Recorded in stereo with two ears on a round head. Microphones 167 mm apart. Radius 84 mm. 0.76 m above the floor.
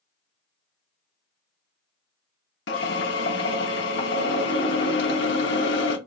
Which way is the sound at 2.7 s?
60° left (ahead or behind).